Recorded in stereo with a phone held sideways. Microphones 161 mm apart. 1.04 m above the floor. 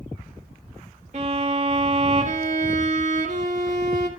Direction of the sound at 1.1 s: 50° right (ahead or behind).